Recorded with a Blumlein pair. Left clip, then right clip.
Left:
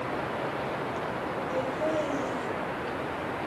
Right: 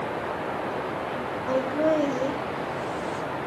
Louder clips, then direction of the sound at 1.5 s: Right 7 dB; 40° right.